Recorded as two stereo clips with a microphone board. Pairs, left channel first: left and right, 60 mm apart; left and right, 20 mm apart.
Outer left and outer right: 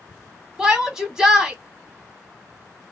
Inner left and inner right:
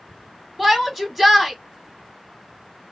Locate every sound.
0.6 s a shout: 10° right (ahead or behind), 1.1 m